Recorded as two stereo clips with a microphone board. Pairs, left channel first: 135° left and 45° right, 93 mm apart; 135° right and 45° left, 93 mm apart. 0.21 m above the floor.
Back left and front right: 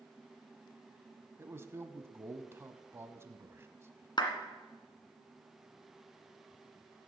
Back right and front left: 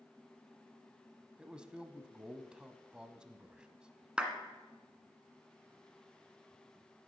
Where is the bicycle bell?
No bicycle bell in this recording.